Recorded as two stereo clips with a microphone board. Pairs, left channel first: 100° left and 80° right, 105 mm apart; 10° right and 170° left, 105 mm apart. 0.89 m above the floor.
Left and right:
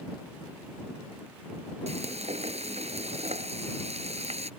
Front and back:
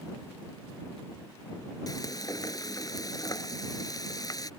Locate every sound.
1.9 s frying: 65° right